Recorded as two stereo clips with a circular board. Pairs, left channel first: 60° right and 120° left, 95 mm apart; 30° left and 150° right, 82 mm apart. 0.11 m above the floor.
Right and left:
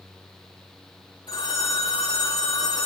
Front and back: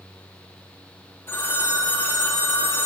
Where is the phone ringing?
30° right, 5 m.